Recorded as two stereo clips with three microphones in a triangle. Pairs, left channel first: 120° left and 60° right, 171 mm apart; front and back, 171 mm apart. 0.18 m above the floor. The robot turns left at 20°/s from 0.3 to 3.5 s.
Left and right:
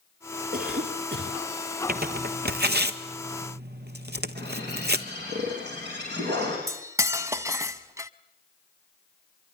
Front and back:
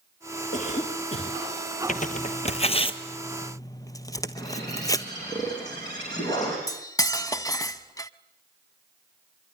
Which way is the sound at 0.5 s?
40° right.